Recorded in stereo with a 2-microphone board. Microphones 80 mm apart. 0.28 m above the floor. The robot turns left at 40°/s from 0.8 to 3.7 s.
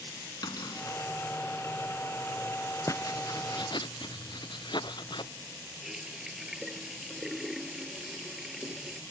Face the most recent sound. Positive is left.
turn(degrees=-5)  # may be behind; listen again after turning